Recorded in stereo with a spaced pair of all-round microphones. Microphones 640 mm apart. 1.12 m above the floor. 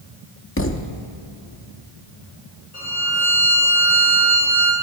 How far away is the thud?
About 0.6 m.